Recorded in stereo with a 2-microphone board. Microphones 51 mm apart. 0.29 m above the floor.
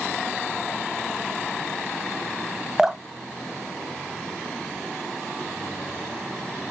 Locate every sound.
2.8 s dripping: 10° right (ahead or behind), 0.7 m